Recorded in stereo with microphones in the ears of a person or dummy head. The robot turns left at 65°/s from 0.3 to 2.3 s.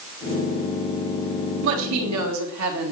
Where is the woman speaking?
65° right, 3 m; by 2.9 s 105° right, 3 m.